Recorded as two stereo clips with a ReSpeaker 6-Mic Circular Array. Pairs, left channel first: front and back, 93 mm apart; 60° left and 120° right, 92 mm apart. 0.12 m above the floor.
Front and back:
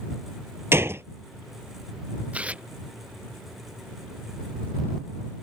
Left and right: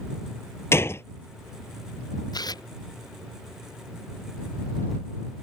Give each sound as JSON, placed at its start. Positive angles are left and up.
{"t": 0.7, "sound": "a gunshot", "azimuth_deg": 120}
{"t": 2.3, "sound": "tearing paper", "azimuth_deg": 105}